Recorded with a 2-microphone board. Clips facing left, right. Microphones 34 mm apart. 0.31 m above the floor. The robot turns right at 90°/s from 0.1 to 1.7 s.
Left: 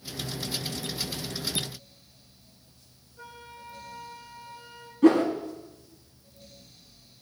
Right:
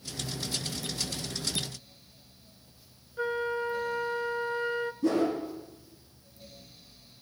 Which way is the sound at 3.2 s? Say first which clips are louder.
Right 16 dB; 60° right (ahead or behind).